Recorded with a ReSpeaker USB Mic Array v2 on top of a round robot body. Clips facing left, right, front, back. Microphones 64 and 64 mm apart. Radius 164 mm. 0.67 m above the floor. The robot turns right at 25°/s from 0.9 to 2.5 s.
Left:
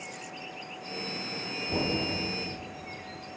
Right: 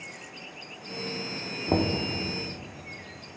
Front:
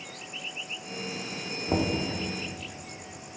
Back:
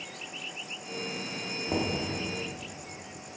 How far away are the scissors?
I don't hear scissors.